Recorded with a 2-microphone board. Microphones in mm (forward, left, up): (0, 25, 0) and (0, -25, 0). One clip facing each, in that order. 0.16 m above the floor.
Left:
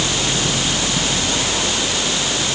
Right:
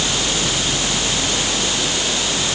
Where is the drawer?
I don't hear a drawer.